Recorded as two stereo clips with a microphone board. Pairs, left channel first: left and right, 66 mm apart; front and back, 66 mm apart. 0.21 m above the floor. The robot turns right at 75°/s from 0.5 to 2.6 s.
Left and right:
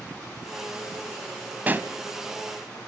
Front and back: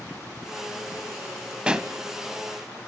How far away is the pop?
About 0.9 m.